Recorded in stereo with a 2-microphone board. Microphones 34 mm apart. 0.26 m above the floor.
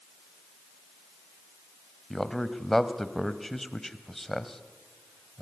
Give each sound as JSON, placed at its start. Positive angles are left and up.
{"t": 2.1, "sound": "a man speaking", "side_deg": 5, "distance_m": 1.3}